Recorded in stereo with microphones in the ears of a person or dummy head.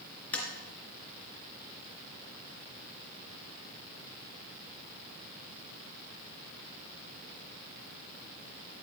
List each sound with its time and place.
0.3 s tapping: 10° left (ahead or behind), 3 m